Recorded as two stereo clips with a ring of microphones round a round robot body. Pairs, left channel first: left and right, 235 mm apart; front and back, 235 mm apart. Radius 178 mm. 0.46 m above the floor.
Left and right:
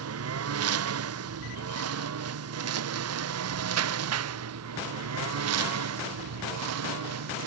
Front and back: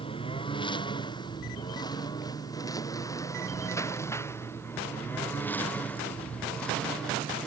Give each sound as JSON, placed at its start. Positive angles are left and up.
{"t": 0.0, "sound": "a lawn mower", "azimuth_deg": -75}